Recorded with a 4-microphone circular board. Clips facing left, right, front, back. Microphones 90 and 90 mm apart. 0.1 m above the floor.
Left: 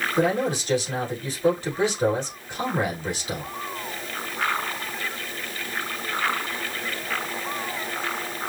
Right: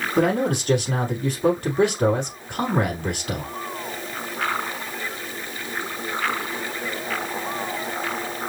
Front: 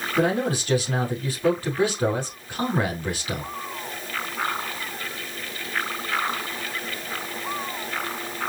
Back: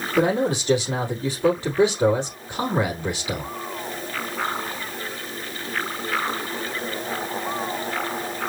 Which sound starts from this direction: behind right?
A man speaking, at 0.2 s.